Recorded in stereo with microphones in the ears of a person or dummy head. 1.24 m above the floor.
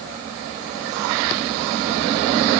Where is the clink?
No clink in this recording.